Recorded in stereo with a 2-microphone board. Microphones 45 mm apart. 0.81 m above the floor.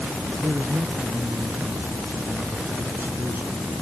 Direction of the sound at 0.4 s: 55° right (ahead or behind).